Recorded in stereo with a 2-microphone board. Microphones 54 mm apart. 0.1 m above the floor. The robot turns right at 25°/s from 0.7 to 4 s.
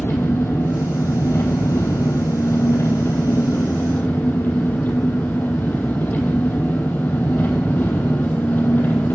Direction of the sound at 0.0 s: 60° left.